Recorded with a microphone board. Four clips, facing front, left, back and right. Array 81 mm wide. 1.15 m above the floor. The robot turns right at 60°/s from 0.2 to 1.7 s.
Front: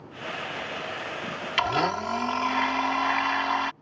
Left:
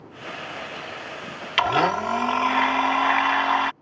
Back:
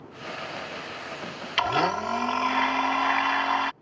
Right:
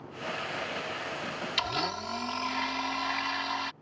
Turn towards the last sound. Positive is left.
turn(degrees=100)